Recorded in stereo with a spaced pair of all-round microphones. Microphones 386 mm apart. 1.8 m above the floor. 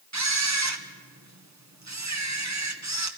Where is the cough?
I don't hear a cough.